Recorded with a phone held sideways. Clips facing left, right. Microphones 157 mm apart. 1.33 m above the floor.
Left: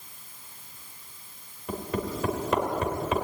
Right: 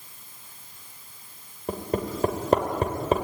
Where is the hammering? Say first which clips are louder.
Right 3 dB; 40° right (ahead or behind), 3 m.